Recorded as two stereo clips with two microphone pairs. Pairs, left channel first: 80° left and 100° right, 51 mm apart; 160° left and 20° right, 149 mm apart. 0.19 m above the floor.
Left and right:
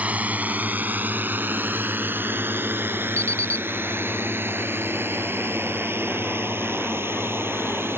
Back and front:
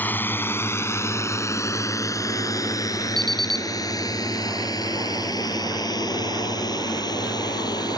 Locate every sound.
0.0 s a drone: 135° right; by 8.0 s 140° right
3.2 s an alarm clock: 85° right